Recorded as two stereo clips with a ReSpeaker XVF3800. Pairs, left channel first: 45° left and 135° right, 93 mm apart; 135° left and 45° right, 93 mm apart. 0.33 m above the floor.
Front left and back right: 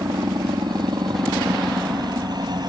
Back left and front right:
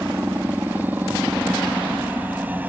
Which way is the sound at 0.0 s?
110° right.